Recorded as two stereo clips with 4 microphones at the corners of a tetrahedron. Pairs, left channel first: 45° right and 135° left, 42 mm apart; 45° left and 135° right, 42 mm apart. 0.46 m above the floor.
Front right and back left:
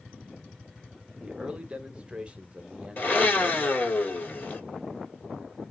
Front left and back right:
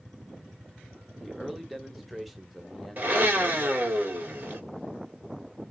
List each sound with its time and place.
1.2 s a man speaking: 140° left, 0.8 m
3.0 s a blender: 85° right, 1.7 m